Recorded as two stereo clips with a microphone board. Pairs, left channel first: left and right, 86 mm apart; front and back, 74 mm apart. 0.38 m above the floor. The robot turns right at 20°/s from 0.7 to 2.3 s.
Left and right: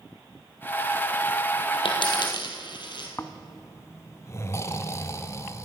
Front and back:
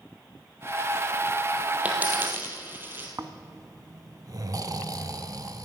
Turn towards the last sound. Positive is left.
turn(degrees=145)